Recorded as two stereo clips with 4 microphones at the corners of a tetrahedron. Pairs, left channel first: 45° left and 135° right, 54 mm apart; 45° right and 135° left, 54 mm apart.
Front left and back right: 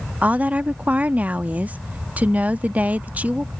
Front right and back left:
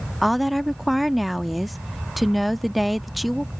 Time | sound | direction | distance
0.2 | a woman speaking | 140° right | ?